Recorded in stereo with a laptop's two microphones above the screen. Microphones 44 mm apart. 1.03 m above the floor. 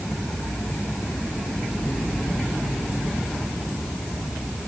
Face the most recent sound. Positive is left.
No sound to turn to.